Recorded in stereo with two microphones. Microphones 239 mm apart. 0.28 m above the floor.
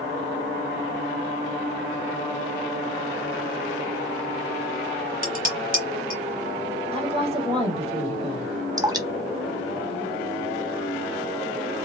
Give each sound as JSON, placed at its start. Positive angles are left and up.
{"t": 5.2, "sound": "dishes clattering", "side_deg": -40, "distance_m": 2.5}
{"t": 6.9, "sound": "a woman speaking", "side_deg": -25, "distance_m": 1.2}
{"t": 8.8, "sound": "dripping", "side_deg": -15, "distance_m": 0.7}